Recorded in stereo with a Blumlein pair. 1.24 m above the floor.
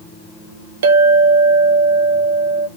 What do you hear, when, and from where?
0.8 s a clink: 60° right, 0.8 m